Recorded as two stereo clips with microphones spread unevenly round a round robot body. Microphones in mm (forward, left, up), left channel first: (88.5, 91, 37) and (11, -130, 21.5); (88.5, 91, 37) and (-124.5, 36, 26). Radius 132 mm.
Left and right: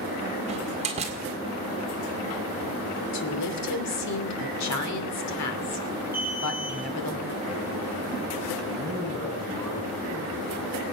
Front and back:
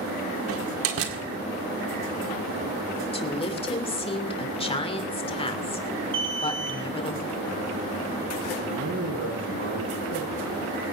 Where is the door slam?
175° right, 1.8 m.